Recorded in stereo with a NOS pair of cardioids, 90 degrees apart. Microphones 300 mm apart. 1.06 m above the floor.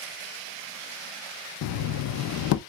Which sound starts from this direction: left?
Knocking, at 1.6 s.